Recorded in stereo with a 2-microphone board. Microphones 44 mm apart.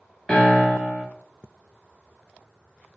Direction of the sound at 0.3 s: 15° left (ahead or behind).